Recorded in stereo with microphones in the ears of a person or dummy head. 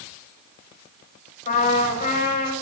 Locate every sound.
1.5 s a trumpet: 45° left (ahead or behind), 9.5 m